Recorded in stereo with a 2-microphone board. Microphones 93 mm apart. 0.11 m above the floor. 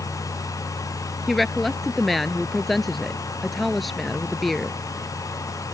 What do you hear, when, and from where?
1.3 s a woman speaking: centre (ahead or behind)